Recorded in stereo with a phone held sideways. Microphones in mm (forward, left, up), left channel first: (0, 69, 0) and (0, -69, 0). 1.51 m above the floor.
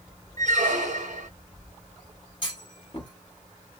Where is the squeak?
65° right (ahead or behind), 1.0 m.